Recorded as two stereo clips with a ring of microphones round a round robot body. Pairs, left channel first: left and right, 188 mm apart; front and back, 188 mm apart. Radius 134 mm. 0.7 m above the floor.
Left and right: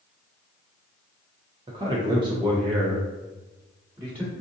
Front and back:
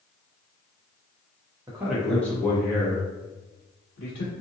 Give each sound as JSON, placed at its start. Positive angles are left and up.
{"t": 1.7, "sound": "a man speaking", "azimuth_deg": -125, "distance_m": 0.7}